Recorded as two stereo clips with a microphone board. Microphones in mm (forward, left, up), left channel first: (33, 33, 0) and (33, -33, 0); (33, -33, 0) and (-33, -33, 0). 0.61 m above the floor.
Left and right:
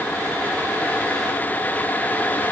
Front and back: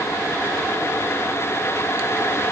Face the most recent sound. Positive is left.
No sound to turn to.